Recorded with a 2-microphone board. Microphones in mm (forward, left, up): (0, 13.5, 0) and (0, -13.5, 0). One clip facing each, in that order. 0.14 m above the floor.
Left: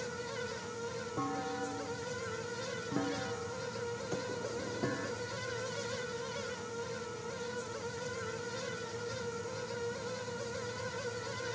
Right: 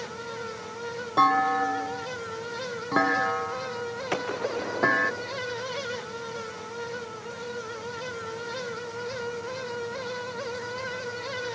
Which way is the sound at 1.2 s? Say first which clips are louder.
Right 17 dB; 75° right (ahead or behind).